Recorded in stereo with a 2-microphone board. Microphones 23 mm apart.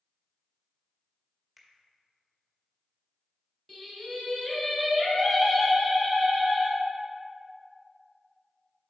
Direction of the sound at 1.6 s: 10° right (ahead or behind).